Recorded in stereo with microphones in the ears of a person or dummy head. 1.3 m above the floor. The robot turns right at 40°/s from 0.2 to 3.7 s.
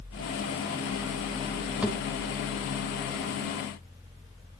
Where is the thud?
5° right (ahead or behind), 4.5 m; by 2.0 s centre (ahead or behind), 4.5 m.